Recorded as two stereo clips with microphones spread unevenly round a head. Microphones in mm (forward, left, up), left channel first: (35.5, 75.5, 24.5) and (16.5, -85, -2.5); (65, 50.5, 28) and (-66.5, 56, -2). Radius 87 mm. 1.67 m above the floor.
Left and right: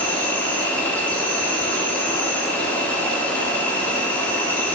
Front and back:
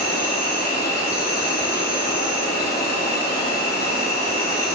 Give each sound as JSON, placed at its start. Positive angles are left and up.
{"t": 0.0, "sound": "an insect", "azimuth_deg": -5, "distance_m": 0.8}